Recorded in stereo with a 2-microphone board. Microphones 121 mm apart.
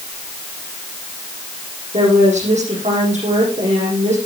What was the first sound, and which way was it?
A woman speaking, 75° right (ahead or behind).